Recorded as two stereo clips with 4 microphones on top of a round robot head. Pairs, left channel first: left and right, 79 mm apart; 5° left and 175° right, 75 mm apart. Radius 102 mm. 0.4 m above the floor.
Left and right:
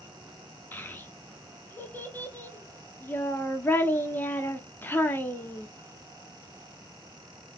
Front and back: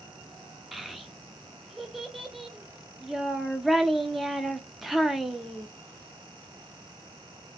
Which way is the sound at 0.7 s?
100° left.